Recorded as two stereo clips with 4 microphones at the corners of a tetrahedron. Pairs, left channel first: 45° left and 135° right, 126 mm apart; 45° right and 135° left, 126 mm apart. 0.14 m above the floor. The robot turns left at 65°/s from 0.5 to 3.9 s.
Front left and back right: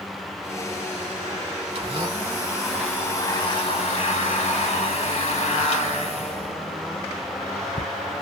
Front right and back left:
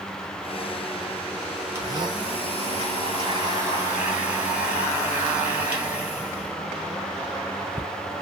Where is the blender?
165° right, 1.1 m; by 7.9 s 55° left, 1.1 m.